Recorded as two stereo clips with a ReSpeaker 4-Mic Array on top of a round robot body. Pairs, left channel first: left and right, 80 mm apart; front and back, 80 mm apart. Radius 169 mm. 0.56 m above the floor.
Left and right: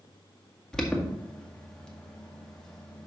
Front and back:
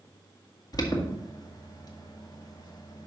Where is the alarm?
10° left, 2 m.